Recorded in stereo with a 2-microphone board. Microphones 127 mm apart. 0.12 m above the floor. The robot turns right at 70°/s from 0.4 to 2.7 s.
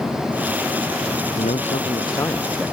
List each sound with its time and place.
1.4 s a man speaking: 100° left; by 2.7 s 170° right